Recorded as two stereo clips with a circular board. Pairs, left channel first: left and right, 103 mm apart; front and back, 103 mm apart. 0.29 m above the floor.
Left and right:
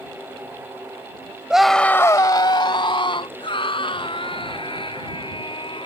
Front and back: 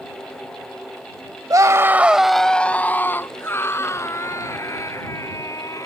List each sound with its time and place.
1.5 s a scream: 165° right; by 5.9 s 60° left